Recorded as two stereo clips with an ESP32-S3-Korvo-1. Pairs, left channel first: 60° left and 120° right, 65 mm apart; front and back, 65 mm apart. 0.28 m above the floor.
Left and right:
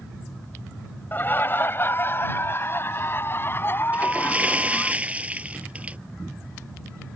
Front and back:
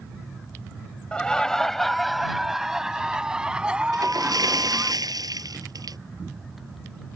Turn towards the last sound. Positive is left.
turn(degrees=170)